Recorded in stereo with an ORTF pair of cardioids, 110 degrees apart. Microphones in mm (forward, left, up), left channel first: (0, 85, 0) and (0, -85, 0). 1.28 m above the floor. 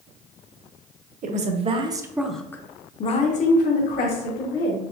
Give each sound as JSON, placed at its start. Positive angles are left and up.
{"t": 1.2, "sound": "a woman speaking", "azimuth_deg": -50, "distance_m": 0.8}